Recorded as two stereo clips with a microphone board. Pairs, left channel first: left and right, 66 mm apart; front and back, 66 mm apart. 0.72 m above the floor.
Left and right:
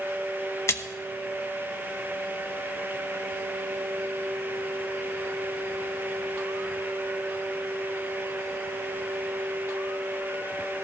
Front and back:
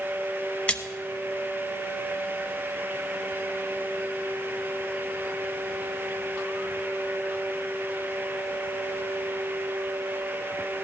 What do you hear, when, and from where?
0.7 s a splash: 65° left, 0.8 m